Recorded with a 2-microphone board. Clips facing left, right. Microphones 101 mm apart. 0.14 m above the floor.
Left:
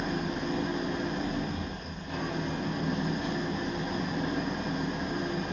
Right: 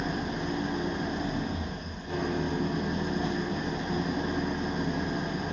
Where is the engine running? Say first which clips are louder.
Even; 20° right (ahead or behind), 1.3 m.